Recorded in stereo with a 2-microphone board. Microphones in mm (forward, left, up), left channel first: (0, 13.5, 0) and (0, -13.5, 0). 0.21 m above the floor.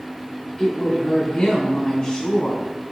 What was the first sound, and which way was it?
A woman speaking, 30° left (ahead or behind).